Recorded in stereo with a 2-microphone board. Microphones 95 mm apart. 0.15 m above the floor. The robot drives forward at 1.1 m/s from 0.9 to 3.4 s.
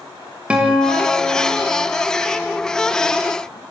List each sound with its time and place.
0.5 s a guitar: 10° right (ahead or behind), 6 m